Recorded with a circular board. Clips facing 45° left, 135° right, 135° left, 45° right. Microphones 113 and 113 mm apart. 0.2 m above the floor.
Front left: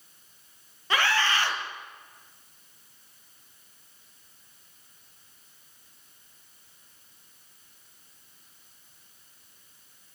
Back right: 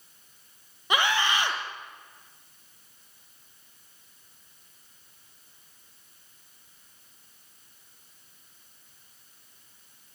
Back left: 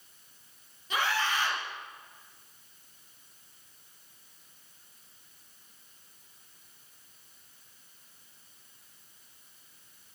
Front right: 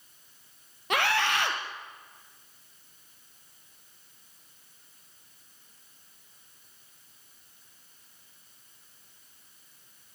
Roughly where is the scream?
Ahead right.